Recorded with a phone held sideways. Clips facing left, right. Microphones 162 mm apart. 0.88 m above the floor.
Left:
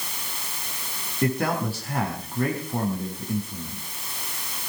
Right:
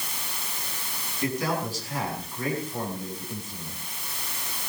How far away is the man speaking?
About 7 m.